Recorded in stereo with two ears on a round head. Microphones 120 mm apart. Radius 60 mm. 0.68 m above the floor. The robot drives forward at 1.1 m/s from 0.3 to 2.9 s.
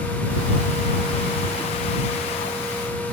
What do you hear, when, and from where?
Only background noise.